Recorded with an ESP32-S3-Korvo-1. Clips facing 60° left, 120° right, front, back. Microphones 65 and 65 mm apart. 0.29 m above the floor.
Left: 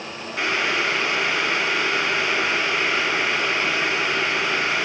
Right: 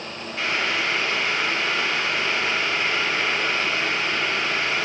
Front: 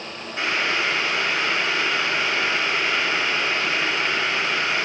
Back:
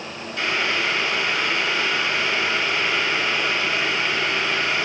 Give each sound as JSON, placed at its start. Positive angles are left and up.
{"t": 0.4, "sound": "boiling", "azimuth_deg": 60, "distance_m": 3.0}